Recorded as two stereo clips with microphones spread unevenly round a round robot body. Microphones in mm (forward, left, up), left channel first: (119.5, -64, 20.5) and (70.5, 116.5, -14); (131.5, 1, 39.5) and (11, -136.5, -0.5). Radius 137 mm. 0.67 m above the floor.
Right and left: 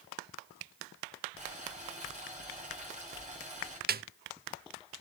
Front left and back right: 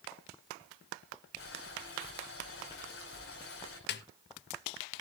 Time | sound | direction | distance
1.4 | boiling | 55° left | 7 m
3.9 | a snare drum | 60° left | 0.6 m